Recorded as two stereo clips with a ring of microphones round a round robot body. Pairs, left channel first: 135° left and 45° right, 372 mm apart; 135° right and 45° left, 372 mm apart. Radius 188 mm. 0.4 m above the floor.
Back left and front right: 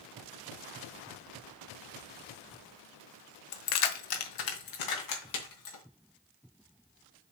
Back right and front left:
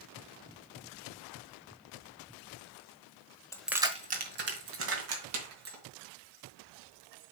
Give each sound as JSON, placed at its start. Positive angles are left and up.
{"t": 3.5, "sound": "keys jangling", "azimuth_deg": 145, "distance_m": 1.0}